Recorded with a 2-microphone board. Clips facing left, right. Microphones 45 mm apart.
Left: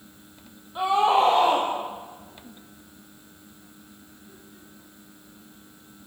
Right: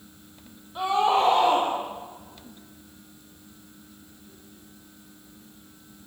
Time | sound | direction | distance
0.8 | a scream | 10° left (ahead or behind) | 4 m